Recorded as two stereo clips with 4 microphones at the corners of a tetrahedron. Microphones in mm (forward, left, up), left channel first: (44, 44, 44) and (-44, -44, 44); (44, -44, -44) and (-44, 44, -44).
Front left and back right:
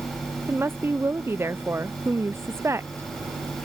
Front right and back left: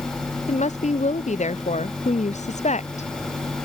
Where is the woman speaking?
65° right.